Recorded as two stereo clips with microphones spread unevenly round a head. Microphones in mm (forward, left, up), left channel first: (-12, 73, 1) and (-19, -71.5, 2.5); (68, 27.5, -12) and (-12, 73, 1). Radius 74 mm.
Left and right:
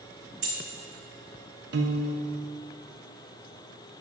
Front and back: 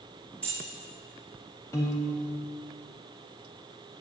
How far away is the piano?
About 1.1 m.